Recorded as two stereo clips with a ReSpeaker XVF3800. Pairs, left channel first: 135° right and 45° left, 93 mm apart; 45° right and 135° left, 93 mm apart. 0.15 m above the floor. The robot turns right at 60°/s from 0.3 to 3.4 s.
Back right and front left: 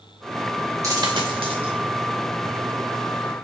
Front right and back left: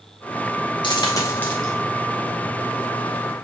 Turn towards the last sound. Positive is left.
turn(degrees=140)